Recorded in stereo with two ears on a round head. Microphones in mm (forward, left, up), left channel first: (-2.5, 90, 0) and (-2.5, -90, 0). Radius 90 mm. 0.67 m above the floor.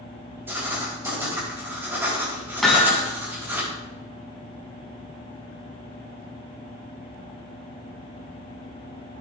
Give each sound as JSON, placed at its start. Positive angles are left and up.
{"t": 0.5, "sound": "writing", "side_deg": -10, "distance_m": 4.0}
{"t": 2.6, "sound": "hammering", "side_deg": 0, "distance_m": 3.0}